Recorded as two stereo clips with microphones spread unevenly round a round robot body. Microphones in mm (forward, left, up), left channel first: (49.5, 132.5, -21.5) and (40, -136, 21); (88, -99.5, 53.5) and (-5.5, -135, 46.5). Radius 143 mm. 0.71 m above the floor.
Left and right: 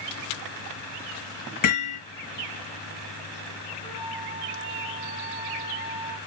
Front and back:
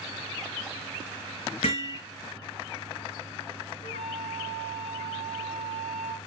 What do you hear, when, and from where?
1.6 s hammering: 65° left, 4.5 m
3.8 s a flute: 20° left, 2.5 m